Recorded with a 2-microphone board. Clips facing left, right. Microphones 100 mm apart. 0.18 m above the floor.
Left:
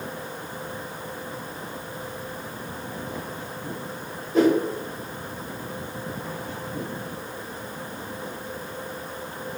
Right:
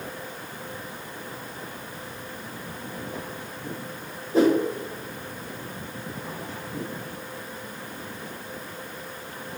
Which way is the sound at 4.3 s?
35° right (ahead or behind).